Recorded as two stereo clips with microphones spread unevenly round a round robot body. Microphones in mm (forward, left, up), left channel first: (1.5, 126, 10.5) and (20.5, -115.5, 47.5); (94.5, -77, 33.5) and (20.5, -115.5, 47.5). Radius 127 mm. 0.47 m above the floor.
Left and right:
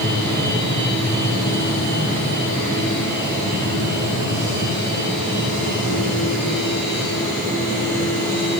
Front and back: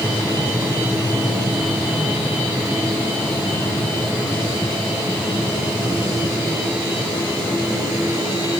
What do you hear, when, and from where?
Only background noise.